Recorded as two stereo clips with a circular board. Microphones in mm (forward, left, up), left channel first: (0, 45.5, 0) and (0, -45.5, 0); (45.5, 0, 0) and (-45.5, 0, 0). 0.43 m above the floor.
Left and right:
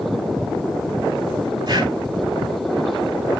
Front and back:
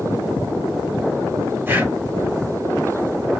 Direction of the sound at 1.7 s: 115° right.